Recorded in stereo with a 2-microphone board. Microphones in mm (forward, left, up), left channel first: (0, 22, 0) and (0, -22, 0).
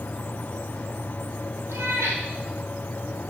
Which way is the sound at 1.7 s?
80° right.